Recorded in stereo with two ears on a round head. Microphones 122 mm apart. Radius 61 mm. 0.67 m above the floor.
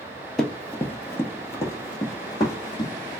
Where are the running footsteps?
5° left (ahead or behind), 0.6 m; by 2.9 s 30° left (ahead or behind), 1.9 m.